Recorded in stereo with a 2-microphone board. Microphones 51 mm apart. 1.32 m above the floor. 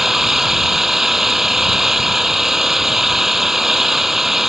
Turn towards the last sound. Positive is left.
turn(degrees=-5)  # may be behind; listen again after turning